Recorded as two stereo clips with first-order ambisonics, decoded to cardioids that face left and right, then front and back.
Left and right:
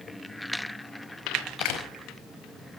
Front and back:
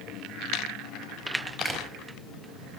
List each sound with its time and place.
1.6 s a door slam: 100° left, 4.5 m